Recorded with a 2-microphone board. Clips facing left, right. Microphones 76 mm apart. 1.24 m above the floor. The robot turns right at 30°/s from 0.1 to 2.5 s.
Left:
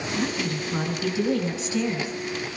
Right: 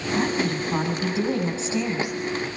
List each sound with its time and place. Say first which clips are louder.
0.1 s a woman speaking: right 4 dB; 75° right, 9.5 m; by 2.2 s 15° right, 9.5 m